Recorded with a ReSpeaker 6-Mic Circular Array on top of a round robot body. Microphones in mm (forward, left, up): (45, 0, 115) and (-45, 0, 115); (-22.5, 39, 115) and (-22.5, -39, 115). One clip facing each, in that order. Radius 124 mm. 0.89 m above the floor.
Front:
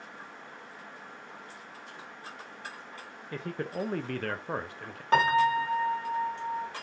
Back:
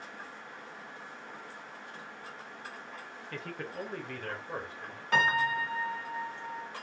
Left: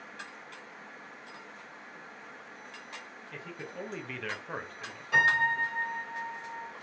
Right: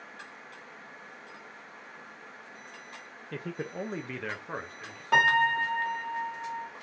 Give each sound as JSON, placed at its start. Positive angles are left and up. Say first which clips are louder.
{"t": 3.3, "sound": "a man speaking", "louder": "front 5 dB, right 6 dB", "azimuth_deg": -70, "distance_m": 0.6}
{"t": 5.1, "sound": "a piano", "louder": "front 5 dB, right 3 dB", "azimuth_deg": -55, "distance_m": 1.5}